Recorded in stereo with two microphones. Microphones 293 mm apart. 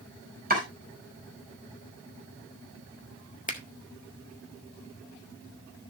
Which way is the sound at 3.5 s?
25° left (ahead or behind).